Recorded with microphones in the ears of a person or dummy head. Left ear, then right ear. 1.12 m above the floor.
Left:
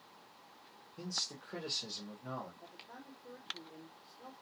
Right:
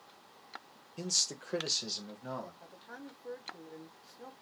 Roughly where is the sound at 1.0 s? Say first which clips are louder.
Right 7 dB; right.